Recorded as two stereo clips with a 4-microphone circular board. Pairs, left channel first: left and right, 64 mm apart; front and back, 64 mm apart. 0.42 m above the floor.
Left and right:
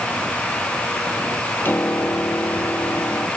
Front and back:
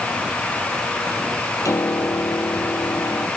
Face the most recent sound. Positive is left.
turn(degrees=35)